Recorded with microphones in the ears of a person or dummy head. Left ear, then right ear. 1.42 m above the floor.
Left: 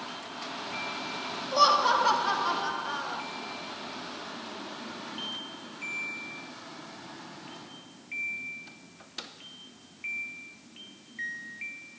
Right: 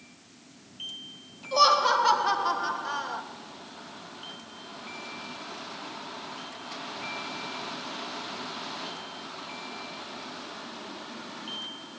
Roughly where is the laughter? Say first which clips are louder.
Right 1 dB; centre.